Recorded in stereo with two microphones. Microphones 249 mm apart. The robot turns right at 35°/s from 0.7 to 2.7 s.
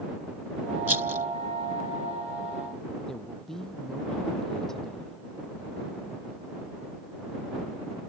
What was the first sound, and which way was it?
A rattle, 70° right (ahead or behind).